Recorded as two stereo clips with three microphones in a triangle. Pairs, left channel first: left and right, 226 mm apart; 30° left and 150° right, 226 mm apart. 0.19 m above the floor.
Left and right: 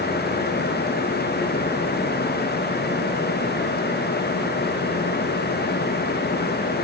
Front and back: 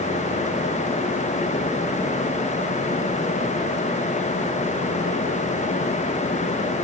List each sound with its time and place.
Only background noise.